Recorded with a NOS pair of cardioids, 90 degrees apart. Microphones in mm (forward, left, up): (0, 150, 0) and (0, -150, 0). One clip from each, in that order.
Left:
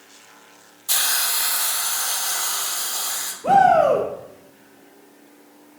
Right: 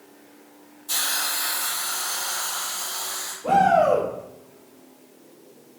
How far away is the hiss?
About 0.7 m.